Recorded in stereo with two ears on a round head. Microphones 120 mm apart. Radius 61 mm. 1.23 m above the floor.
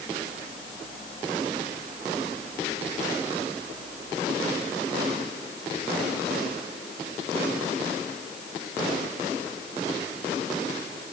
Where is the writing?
No writing in this recording.